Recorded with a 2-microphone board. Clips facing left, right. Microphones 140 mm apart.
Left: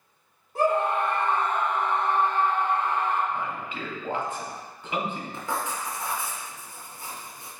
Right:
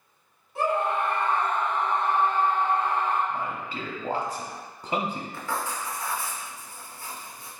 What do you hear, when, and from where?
0.6 s a scream: 45° left (ahead or behind), 1.3 m; by 3.2 s 40° right (ahead or behind), 1.2 m
3.3 s a man speaking: 40° right (ahead or behind), 0.7 m
5.3 s writing: 20° left (ahead or behind), 0.7 m